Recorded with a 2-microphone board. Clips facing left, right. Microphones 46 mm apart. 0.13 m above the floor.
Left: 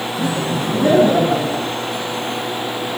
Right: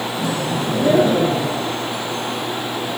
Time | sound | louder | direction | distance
0.2 | laughter | left 2 dB | 50° left (ahead or behind) | 8 m